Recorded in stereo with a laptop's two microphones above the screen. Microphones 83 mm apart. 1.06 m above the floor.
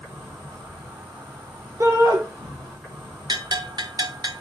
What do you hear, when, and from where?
0.0 s an insect: centre (ahead or behind), 6.5 m
1.8 s a shout: 40° right (ahead or behind), 1.1 m
3.3 s a bell: 55° right (ahead or behind), 0.9 m